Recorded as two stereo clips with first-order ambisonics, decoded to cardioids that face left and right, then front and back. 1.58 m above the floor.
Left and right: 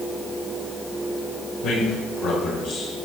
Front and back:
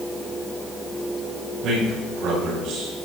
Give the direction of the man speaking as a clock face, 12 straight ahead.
8 o'clock.